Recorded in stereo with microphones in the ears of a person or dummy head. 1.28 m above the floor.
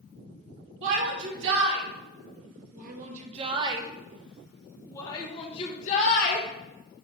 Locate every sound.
0.8 s a shout: 70° right (ahead or behind), 2.5 m; by 6.5 s 45° left (ahead or behind), 1.7 m